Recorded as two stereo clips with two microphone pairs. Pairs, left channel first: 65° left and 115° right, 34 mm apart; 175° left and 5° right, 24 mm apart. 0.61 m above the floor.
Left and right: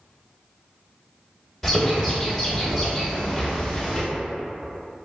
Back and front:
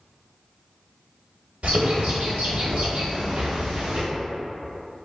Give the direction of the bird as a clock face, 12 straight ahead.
1 o'clock.